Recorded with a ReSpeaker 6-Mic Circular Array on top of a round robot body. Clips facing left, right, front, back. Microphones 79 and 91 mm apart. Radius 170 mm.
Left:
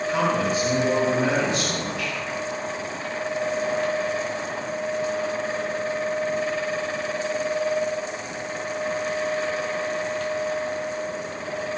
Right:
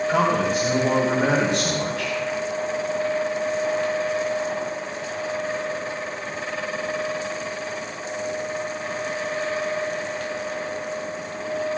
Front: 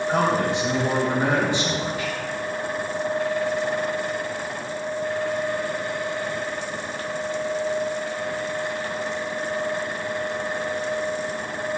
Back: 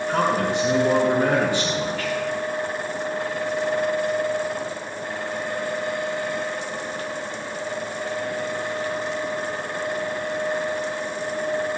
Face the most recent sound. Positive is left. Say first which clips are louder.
# right 1 dB, even
turn(degrees=-65)